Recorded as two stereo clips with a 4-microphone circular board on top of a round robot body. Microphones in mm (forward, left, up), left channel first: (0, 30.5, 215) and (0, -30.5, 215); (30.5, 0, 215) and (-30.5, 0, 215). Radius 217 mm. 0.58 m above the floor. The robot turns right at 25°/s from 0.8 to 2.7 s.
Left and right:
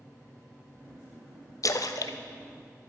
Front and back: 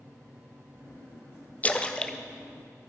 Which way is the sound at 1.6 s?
65° left.